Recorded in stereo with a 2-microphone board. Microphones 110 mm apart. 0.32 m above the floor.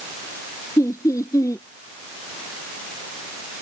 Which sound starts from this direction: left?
Laughter, at 0.8 s.